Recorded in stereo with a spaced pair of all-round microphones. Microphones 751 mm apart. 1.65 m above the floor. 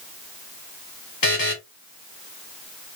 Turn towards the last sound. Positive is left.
turn(degrees=30)  # may be behind; listen again after turning